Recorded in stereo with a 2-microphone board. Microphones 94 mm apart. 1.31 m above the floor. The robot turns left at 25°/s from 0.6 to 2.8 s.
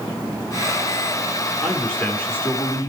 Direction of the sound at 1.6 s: 5° left (ahead or behind).